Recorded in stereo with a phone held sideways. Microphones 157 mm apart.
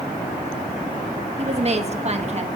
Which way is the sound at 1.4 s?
45° right (ahead or behind).